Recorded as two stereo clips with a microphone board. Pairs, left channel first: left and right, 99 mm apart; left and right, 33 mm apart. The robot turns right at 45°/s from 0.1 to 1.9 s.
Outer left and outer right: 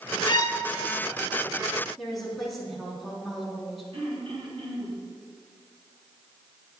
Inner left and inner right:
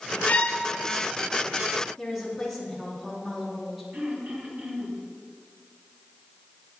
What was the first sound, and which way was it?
A violin, 45° left (ahead or behind).